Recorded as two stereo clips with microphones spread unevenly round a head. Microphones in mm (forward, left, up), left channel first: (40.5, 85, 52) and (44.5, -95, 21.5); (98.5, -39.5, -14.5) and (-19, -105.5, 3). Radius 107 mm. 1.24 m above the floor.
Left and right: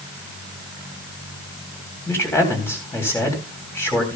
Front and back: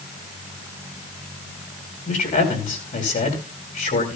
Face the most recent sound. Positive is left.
turn(degrees=15)